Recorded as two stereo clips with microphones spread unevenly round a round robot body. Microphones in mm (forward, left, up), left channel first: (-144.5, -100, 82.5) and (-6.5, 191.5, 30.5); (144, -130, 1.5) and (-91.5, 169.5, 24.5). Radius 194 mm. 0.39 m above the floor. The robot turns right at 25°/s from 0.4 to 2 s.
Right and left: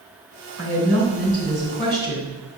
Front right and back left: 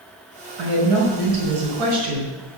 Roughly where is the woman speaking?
Left.